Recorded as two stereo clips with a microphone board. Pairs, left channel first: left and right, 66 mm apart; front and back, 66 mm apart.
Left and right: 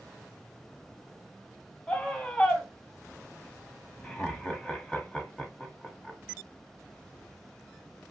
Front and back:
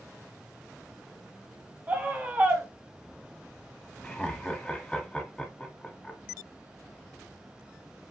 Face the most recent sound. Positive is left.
turn(degrees=50)